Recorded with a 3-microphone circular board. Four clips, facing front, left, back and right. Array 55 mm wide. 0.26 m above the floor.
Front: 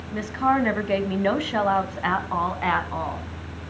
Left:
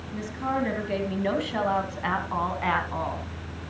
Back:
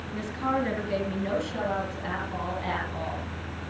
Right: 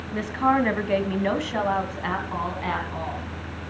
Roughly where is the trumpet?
No trumpet in this recording.